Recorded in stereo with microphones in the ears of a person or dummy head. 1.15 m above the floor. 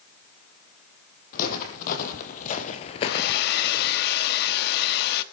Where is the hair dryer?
60° left (ahead or behind), 1.3 m.